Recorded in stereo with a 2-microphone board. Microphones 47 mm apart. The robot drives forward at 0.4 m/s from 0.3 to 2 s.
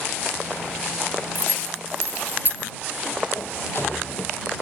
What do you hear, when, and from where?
1.4 s keys jangling: 45° right (ahead or behind); by 2.7 s 40° right (ahead or behind)
3.4 s a sliding door: 50° left (ahead or behind)